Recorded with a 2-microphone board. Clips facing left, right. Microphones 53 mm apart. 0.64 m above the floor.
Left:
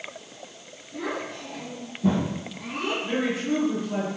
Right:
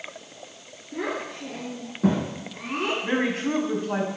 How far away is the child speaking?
About 5.5 m.